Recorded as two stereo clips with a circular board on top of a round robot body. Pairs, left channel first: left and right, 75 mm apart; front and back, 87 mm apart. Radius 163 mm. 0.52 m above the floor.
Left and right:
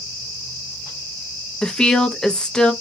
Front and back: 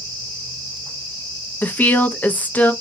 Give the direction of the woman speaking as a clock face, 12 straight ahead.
11 o'clock.